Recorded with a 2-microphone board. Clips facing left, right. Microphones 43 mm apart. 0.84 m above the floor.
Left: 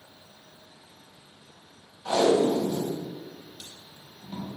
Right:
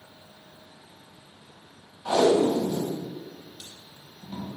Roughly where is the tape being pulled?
Centre.